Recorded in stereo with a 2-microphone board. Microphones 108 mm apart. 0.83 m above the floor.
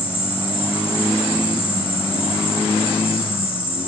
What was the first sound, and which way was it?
An insect, 50° left (ahead or behind).